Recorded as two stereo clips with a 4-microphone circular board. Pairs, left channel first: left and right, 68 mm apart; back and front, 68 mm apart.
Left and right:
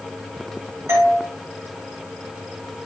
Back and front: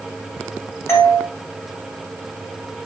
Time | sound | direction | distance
0.9 | a doorbell | 130° right | 3.5 m